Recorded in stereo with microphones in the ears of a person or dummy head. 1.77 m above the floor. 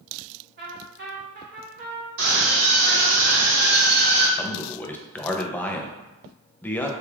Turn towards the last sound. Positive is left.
turn(degrees=10)  # may be behind; listen again after turning